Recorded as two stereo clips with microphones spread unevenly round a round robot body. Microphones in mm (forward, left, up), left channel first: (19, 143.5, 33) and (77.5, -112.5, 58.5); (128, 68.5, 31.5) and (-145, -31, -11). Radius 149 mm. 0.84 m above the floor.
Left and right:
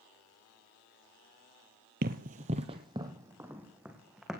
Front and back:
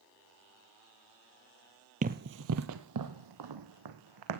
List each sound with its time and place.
2.0 s running footsteps: 95° right, 1.0 m; by 4.4 s 165° right, 2.5 m